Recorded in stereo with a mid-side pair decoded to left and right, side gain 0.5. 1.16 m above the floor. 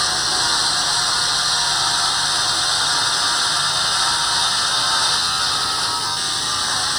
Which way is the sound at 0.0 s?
5° left.